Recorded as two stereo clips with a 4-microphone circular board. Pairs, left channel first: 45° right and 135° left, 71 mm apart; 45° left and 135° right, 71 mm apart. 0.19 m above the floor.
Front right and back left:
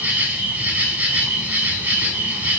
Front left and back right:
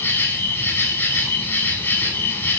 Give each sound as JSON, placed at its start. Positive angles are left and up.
{"t": 0.0, "sound": "an insect", "azimuth_deg": 80, "distance_m": 0.7}